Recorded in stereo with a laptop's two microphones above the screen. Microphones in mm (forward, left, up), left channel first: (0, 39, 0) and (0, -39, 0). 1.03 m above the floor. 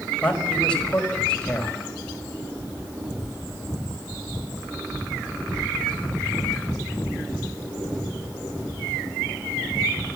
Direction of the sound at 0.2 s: 15° left (ahead or behind).